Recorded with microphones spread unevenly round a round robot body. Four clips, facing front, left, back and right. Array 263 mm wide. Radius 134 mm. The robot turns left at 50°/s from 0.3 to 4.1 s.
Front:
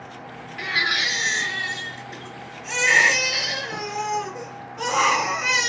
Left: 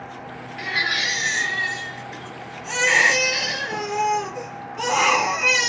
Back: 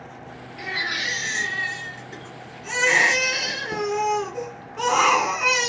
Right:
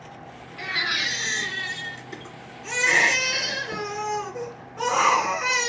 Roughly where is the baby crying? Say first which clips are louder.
Left 3 dB, front 4 dB; ahead.